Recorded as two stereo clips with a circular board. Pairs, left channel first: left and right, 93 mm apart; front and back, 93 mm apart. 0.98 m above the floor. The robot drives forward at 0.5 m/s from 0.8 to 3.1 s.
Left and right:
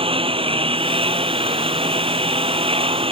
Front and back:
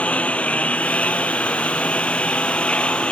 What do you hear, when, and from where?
0.0 s a lawn mower: 75° right; by 3.1 s 80° right